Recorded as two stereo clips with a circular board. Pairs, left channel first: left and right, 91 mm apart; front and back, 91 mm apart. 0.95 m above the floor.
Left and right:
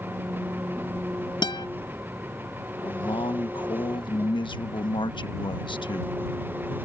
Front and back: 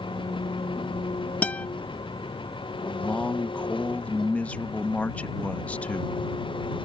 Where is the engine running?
25° right.